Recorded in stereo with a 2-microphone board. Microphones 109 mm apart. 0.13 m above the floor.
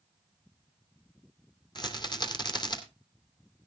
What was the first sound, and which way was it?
A rattle, 45° left (ahead or behind).